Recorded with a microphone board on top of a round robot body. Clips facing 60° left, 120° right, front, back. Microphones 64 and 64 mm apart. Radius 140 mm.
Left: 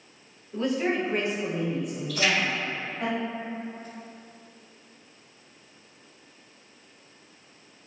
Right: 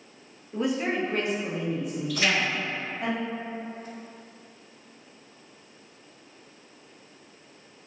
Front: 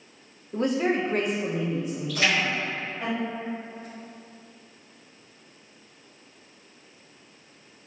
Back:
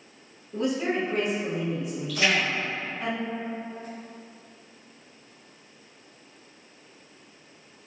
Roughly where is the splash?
Ahead right.